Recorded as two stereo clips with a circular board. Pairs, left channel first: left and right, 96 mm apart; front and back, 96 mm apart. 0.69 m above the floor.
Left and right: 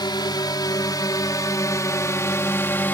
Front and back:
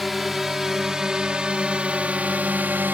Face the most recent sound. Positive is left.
turn(degrees=135)